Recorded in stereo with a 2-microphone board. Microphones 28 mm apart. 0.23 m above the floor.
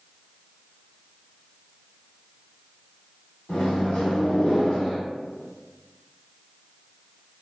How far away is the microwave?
About 1.1 m.